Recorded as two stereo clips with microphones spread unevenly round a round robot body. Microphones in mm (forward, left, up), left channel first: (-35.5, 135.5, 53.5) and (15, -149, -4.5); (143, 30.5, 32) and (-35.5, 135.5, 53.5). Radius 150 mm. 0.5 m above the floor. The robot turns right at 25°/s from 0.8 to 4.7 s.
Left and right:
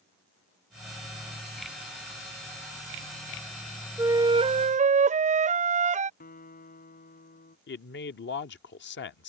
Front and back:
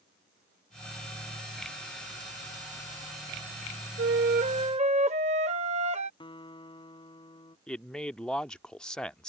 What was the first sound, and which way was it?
A flute, 160° right.